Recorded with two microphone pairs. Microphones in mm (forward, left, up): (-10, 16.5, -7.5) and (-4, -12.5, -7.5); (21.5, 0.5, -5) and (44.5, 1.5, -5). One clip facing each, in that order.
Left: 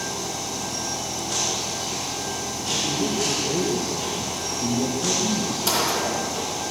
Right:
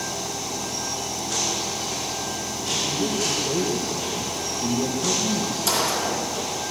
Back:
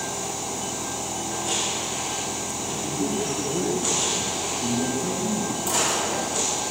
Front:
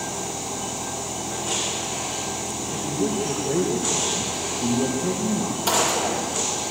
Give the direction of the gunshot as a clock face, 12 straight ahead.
11 o'clock.